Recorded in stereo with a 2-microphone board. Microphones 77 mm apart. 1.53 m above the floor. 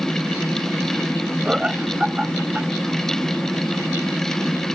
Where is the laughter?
10° right (ahead or behind).